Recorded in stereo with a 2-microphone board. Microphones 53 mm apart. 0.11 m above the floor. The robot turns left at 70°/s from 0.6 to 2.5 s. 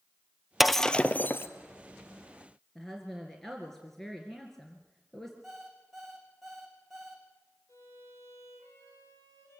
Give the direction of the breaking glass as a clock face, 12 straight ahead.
6 o'clock.